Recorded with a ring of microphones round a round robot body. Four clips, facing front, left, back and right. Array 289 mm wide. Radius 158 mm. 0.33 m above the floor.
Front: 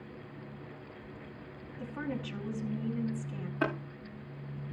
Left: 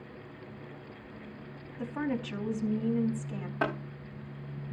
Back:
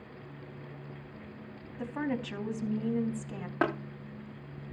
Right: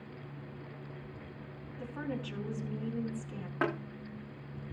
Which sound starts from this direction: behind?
Tapping, at 3.6 s.